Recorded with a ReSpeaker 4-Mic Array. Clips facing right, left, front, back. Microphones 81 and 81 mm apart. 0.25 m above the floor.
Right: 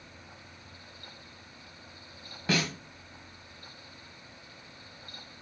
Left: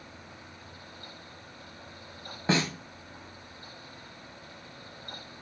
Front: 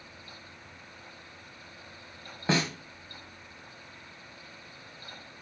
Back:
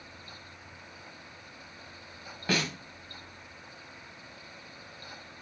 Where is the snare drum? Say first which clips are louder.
Left 3 dB, front 3 dB; 50° left, 2.0 m.